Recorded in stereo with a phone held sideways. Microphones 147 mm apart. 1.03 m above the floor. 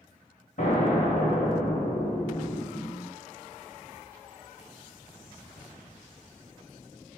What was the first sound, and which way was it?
An explosion, 55° left (ahead or behind).